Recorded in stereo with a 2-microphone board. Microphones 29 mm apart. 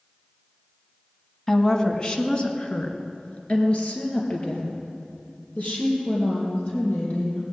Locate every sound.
1.5 s a woman speaking: 20° left (ahead or behind), 1.4 m; by 7.4 s 50° left (ahead or behind), 7 m